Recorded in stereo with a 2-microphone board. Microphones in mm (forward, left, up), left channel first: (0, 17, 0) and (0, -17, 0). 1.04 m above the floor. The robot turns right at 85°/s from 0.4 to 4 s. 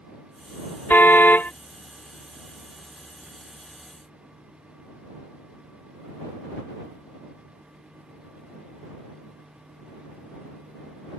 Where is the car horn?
70° left; by 1.5 s 120° left.